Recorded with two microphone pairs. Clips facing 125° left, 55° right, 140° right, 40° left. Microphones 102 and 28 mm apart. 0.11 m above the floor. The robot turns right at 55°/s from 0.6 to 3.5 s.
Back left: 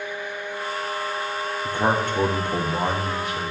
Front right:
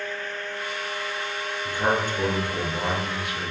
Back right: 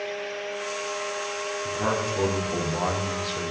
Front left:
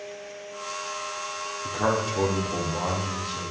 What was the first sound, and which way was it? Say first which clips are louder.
A man speaking: back left 2 dB, front left 2 dB; 90° left.